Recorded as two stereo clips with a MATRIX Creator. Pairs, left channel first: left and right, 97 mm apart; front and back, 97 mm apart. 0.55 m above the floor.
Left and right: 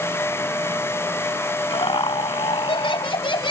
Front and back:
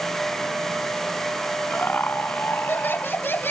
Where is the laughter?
70° left; by 3.5 s 65° left.